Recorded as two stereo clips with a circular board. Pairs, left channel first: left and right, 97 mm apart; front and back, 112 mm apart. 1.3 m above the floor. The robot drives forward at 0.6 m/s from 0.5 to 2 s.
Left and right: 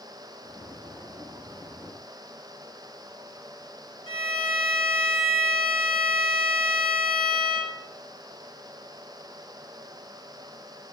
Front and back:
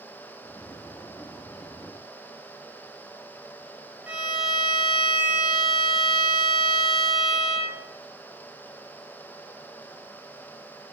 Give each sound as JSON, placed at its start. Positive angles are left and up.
{"t": 4.1, "sound": "a violin", "azimuth_deg": 105, "distance_m": 0.8}